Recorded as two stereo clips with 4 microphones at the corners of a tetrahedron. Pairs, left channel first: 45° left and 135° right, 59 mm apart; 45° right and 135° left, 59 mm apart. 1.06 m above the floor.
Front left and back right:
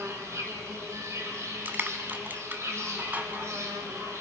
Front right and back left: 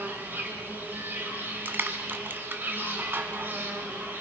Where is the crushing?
Straight behind, 1.4 m.